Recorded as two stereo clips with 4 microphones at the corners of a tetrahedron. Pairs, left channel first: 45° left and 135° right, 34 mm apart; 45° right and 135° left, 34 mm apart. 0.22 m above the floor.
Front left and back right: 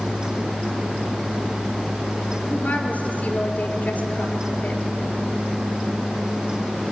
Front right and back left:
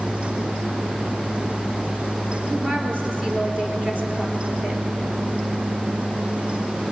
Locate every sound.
2.5 s a woman speaking: 75° left, 3.5 m